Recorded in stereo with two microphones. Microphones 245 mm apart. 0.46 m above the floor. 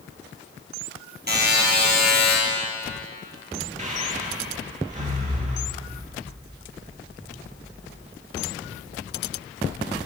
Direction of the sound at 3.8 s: 30° right (ahead or behind).